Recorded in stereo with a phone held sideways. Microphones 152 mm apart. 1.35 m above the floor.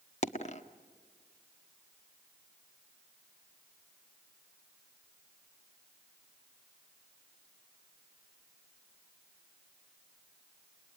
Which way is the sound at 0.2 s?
50° left (ahead or behind).